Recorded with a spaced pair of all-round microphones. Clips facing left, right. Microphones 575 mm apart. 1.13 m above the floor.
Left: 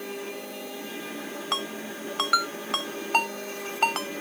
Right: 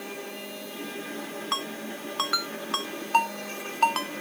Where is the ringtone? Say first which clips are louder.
Left 1 dB; 10° left (ahead or behind).